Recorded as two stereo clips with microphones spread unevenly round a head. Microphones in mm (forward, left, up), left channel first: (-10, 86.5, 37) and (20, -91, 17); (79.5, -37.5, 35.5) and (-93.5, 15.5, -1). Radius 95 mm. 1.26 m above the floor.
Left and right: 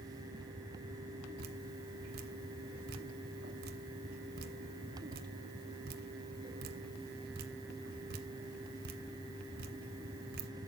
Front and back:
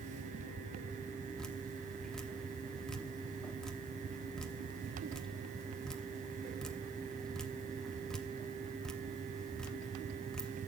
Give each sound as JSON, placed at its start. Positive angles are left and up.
{"t": 1.4, "sound": "dripping", "azimuth_deg": -90, "distance_m": 0.9}